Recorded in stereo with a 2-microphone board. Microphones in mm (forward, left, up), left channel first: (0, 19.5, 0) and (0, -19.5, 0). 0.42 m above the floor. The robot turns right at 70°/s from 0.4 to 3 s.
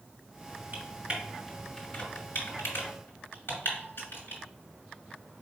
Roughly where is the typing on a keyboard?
Right.